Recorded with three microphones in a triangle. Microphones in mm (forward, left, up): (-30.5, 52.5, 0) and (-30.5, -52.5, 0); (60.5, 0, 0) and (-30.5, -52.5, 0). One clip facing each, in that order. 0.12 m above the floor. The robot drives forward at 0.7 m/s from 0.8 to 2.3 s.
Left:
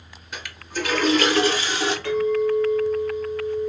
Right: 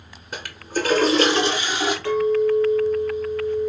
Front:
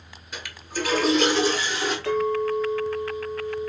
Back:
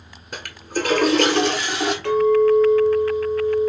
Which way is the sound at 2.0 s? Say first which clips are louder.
Right 2 dB, back 9 dB; 160° right.